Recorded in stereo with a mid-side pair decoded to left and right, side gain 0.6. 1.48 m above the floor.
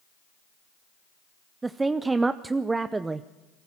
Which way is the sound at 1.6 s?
20° right.